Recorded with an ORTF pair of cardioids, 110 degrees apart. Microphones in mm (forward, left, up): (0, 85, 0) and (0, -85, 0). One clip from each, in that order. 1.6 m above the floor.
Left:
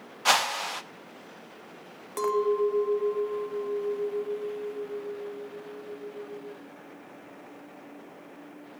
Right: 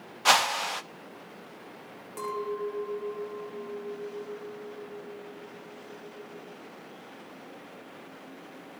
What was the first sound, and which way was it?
A whoosh, 5° right.